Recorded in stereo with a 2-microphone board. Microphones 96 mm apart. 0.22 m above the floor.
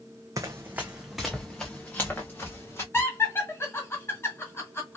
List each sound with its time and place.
0.4 s running footsteps: 35° right (ahead or behind), 0.7 m; by 2.8 s 25° left (ahead or behind), 1.7 m
2.9 s laughter: 25° left (ahead or behind), 1.7 m